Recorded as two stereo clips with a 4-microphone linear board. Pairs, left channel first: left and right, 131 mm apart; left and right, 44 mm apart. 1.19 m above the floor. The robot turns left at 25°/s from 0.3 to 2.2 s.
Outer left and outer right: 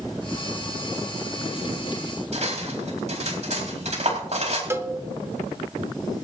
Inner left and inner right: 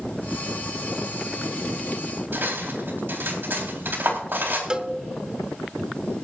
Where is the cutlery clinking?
60° right (ahead or behind), 4 m.